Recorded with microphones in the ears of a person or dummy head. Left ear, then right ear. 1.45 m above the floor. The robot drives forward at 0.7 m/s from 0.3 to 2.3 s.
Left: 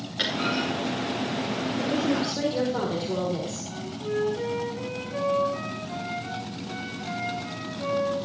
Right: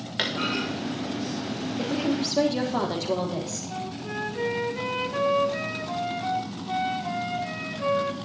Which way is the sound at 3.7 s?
55° right (ahead or behind).